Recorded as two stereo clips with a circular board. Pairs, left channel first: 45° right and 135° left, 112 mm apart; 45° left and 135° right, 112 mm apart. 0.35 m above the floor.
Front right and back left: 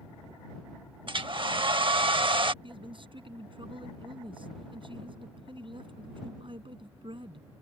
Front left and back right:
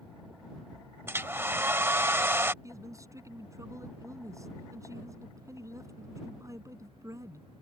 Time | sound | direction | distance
1.1 | a hair dryer | 160° left | ?
2.6 | a man speaking | 165° left | ?